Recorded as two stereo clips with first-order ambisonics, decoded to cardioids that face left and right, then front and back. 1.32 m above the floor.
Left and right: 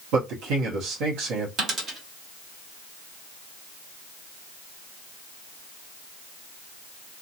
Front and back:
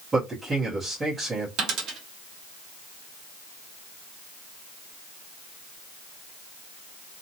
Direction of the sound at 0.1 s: 105° right.